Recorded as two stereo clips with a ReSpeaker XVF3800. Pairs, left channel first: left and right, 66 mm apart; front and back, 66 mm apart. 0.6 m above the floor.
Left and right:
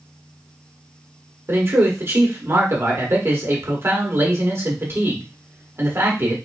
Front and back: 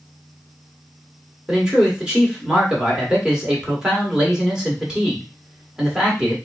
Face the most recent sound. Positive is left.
turn(degrees=-105)